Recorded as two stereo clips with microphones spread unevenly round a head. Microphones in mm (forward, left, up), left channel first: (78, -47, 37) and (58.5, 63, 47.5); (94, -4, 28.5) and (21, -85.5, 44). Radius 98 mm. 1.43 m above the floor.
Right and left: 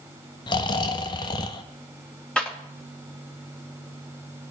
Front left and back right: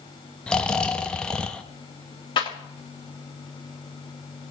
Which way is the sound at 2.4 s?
Straight ahead.